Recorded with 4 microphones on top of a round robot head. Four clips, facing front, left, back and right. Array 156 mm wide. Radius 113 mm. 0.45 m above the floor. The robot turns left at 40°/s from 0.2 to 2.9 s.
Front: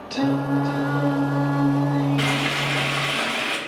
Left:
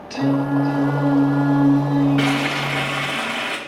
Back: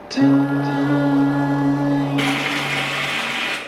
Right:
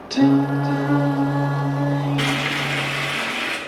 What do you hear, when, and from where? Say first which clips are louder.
0.1 s singing: right 3 dB, back 6 dB; 150° right, 1.6 m; by 3.2 s 100° left, 1.6 m
2.2 s frying: left 4 dB, back 3 dB; 100° left, 3 m; by 3.6 s 70° left, 3 m